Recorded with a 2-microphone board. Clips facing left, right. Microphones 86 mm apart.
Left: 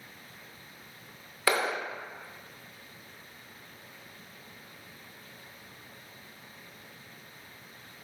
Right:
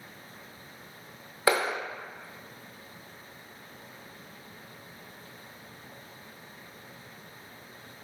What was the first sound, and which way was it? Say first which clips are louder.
A clap: right 2 dB; 25° right (ahead or behind).